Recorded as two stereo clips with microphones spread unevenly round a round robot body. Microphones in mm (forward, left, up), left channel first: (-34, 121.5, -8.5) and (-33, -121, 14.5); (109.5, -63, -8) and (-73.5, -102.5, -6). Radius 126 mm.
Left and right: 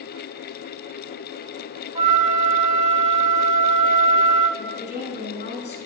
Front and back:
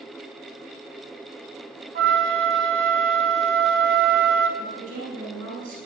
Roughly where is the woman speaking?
Behind left.